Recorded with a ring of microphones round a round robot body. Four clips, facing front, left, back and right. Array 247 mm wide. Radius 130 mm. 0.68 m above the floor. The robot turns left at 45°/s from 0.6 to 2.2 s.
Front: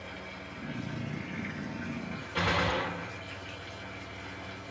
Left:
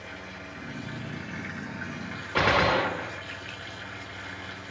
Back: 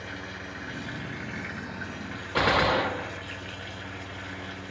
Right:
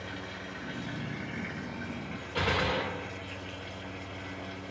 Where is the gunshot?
130° left, 0.7 m.